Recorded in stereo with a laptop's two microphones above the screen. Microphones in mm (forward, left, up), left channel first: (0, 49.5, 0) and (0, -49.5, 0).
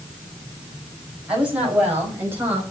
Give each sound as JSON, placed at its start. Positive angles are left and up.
{"t": 1.3, "sound": "a woman speaking", "side_deg": -10, "distance_m": 7.0}